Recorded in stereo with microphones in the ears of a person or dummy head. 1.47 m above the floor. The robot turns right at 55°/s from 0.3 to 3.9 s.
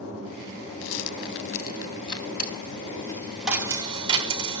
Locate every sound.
0.8 s a rattle: 80° left, 1.0 m; by 2.3 s 10° left (ahead or behind), 1.0 m
2.4 s a dropped coin: 125° left, 3 m; by 4.6 s 150° right, 3 m